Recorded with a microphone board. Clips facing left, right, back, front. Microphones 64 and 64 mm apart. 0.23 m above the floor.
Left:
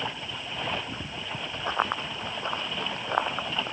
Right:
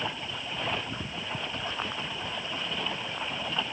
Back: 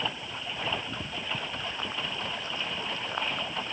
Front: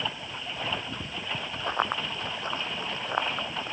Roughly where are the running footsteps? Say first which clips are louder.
Left 6 dB, front 6 dB; ahead left.